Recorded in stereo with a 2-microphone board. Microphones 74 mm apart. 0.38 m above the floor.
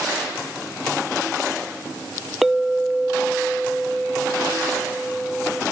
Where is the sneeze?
No sneeze in this recording.